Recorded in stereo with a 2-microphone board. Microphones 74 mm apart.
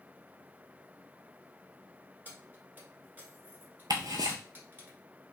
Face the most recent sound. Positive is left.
turn(degrees=-65)  # may be behind; listen again after turning